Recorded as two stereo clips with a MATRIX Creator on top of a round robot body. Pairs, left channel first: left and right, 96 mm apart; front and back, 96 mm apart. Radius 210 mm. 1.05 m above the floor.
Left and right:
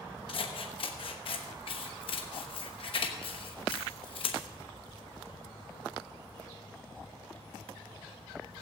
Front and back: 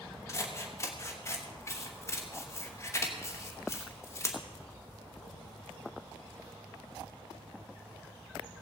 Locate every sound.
0.3 s scissors: 60° left, 1.1 m